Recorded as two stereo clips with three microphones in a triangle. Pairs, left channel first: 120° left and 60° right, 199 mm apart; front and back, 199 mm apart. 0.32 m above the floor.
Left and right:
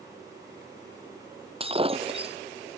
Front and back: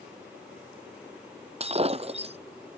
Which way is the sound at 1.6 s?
120° right.